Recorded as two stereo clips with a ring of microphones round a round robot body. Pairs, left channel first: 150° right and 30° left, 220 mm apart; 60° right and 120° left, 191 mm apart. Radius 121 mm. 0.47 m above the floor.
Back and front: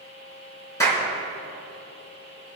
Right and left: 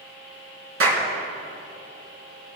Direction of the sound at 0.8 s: 135° left.